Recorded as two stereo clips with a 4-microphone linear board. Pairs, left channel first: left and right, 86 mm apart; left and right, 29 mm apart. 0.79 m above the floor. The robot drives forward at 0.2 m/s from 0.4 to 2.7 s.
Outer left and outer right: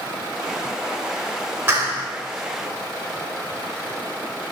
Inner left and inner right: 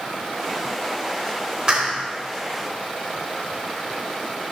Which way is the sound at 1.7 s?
25° right (ahead or behind).